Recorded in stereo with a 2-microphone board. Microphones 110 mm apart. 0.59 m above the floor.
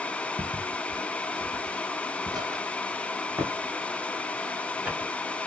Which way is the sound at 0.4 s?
45° right (ahead or behind).